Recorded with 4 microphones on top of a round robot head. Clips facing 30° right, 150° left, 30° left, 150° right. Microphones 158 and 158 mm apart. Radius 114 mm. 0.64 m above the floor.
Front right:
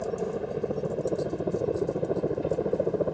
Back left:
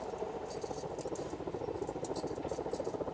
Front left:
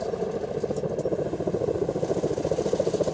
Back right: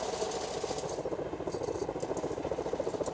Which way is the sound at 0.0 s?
10° right.